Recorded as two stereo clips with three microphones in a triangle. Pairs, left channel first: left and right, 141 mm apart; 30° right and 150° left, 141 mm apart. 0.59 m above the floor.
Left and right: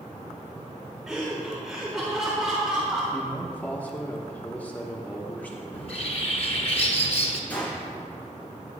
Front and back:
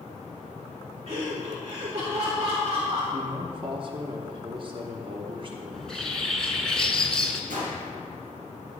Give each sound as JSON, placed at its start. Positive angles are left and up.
{"t": 1.1, "sound": "laughter", "azimuth_deg": -175, "distance_m": 1.5}
{"t": 3.1, "sound": "a man speaking", "azimuth_deg": 160, "distance_m": 0.9}
{"t": 5.7, "sound": "a bird", "azimuth_deg": 55, "distance_m": 1.1}
{"t": 7.5, "sound": "a gunshot", "azimuth_deg": 170, "distance_m": 4.0}